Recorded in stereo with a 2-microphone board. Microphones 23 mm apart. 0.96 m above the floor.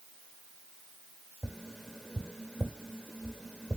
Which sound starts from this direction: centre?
Tapping, at 1.4 s.